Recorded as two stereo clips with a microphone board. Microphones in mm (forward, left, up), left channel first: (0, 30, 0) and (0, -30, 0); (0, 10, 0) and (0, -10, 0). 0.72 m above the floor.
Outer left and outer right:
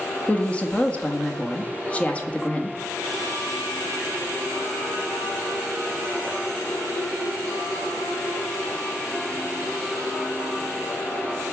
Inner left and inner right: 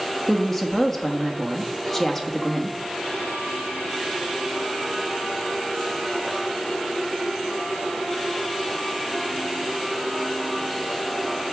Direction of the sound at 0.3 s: 20° left (ahead or behind).